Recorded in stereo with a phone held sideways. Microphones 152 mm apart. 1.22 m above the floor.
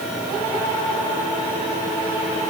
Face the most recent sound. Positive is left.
No sound to turn to.